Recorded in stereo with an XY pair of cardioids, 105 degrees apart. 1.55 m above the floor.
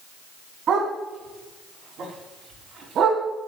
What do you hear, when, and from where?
0.7 s a dog barking: 60° right, 6.5 m; by 3.2 s 70° right, 5.5 m